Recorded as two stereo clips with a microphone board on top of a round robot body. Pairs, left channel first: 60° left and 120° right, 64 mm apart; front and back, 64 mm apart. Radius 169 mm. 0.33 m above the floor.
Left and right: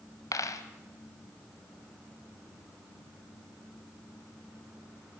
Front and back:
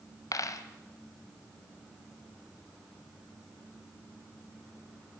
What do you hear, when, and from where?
0.3 s a dropped coin: 30° left, 1.4 m